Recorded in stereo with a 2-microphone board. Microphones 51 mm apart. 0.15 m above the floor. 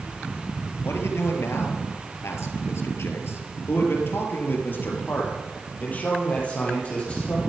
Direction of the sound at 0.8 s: 60° left (ahead or behind).